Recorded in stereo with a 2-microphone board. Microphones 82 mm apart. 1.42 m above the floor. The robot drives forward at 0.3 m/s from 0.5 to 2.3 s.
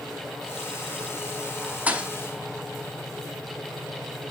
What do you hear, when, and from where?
1.9 s a thud: 20° right (ahead or behind), 1.0 m